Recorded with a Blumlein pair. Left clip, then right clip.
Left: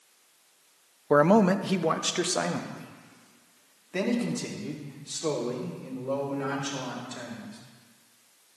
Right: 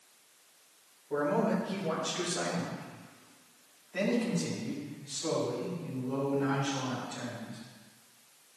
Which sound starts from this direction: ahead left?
A man speaking, at 1.1 s.